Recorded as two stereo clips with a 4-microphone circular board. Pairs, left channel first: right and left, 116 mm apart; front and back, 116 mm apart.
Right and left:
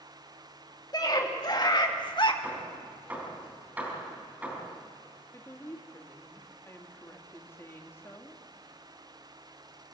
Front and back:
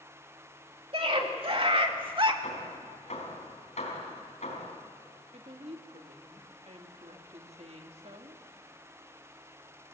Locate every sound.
0.9 s a scream: 145° right, 3 m; by 2.3 s 135° right, 1.7 m
2.4 s hammering: 15° left, 4.5 m
5.3 s a woman speaking: 160° right, 2 m